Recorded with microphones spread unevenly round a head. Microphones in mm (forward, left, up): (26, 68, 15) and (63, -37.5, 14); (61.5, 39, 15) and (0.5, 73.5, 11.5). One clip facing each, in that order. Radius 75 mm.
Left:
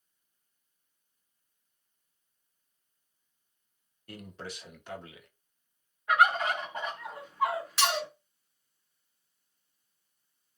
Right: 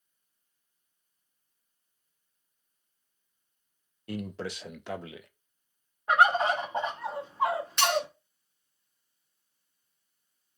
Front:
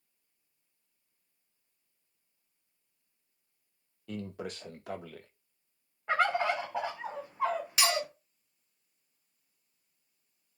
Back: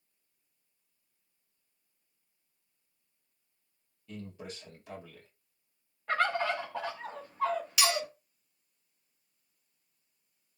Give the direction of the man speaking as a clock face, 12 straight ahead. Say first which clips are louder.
Right 8 dB, front 5 dB; 3 o'clock.